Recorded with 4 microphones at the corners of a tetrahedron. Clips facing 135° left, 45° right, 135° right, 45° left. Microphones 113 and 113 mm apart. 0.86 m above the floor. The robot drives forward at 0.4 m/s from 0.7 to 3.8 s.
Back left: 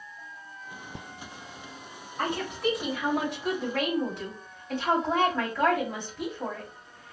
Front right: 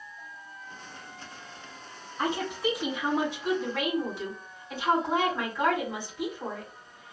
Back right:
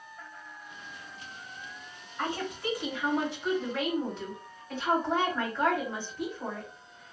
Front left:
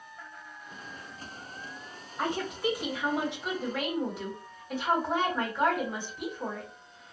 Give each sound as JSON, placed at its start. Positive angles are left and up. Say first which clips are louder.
{"t": 2.2, "sound": "a woman speaking", "louder": "even, front left 2 dB", "azimuth_deg": 115, "distance_m": 3.0}